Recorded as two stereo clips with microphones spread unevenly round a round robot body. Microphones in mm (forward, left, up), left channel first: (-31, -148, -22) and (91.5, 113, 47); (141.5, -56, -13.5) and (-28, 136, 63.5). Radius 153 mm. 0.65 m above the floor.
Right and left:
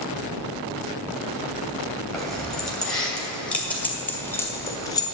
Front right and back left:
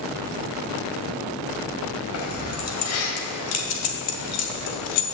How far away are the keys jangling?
About 2.5 m.